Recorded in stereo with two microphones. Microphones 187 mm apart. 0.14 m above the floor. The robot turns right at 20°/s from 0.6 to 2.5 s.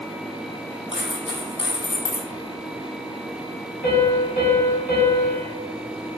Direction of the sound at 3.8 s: 60° left (ahead or behind).